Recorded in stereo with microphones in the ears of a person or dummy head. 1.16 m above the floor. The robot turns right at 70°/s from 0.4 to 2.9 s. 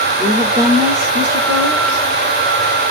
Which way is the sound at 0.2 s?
175° left.